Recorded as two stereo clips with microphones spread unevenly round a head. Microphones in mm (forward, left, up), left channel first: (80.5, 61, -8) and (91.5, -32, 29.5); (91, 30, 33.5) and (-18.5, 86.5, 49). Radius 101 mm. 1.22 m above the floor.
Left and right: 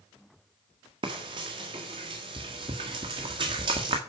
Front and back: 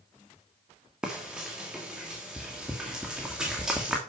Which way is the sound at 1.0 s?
125° right.